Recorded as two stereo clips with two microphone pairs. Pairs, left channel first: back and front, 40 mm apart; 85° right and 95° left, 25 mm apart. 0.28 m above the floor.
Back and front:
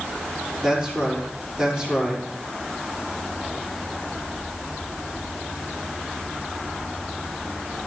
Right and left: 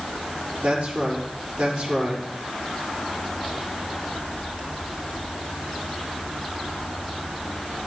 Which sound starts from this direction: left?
A man speaking, at 0.6 s.